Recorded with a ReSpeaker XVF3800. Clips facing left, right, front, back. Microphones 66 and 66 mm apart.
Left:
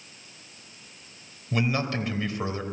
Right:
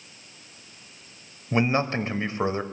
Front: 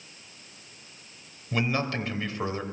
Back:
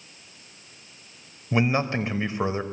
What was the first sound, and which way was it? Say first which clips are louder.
A man speaking: right 4 dB, back 4 dB; 125° right.